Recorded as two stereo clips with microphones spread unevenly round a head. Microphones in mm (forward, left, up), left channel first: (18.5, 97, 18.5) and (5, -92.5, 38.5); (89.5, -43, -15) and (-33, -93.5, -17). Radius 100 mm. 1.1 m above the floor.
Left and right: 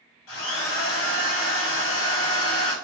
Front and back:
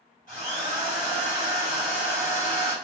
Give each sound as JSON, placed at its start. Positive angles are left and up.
{"t": 0.3, "sound": "a drill", "azimuth_deg": 75, "distance_m": 0.8}